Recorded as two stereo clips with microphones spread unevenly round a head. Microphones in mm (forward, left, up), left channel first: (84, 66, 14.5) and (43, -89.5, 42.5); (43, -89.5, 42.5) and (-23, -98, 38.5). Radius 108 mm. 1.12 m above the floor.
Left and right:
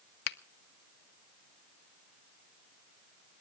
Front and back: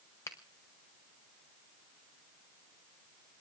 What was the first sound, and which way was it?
A finger snap, 75° left.